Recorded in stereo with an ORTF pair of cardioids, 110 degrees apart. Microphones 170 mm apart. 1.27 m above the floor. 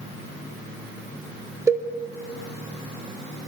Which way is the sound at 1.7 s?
15° right.